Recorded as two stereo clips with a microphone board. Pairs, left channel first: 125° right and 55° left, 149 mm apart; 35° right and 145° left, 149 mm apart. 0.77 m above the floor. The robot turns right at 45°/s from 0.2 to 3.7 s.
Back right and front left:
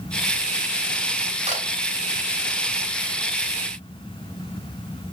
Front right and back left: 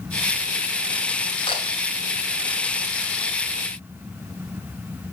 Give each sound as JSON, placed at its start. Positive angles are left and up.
{"t": 1.5, "sound": "a camera shutter", "azimuth_deg": 15, "distance_m": 3.5}